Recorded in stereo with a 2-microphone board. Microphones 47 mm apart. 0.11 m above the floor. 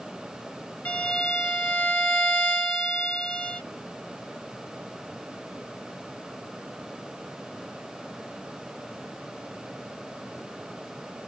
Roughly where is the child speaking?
I don't hear a child speaking.